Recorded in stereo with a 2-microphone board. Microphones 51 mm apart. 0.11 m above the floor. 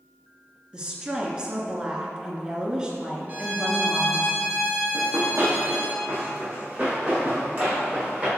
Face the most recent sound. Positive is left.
turn(degrees=-20)  # may be behind; listen again after turning